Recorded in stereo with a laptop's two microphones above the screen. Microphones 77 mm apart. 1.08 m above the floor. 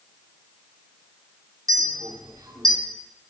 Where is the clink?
55° right (ahead or behind), 2 m.